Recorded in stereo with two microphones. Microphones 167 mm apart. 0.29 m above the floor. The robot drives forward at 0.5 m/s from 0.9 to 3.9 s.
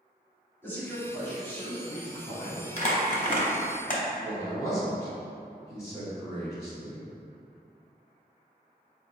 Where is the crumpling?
45° left (ahead or behind), 0.8 m; by 4.0 s 50° left (ahead or behind), 0.7 m.